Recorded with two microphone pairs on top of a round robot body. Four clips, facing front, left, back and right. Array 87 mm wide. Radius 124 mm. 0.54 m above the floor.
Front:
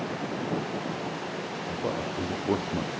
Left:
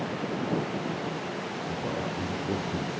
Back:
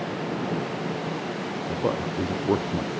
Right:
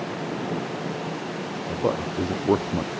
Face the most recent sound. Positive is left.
turn(degrees=-90)